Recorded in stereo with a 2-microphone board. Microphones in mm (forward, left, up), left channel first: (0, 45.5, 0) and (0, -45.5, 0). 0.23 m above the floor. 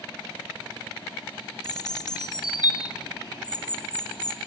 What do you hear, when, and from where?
1.6 s a bird: 50° left (ahead or behind), 2 m